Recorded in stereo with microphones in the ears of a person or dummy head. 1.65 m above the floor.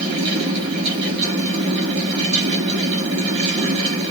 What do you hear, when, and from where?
0.0 s a fan: 25° right (ahead or behind), 1.2 m